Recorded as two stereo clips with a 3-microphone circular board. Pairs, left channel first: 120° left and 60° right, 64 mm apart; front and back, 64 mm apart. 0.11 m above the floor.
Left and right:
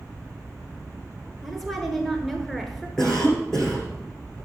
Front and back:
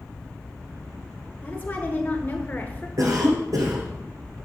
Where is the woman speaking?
35° left, 1.3 m.